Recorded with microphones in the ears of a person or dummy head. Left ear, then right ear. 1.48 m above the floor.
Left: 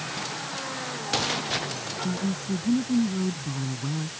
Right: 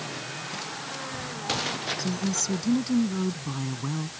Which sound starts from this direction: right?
A woman speaking, at 2.0 s.